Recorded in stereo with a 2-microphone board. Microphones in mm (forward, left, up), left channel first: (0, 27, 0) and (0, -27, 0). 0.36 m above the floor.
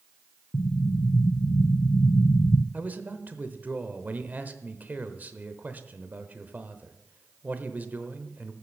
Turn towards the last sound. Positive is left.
turn(degrees=-30)  # may be behind; listen again after turning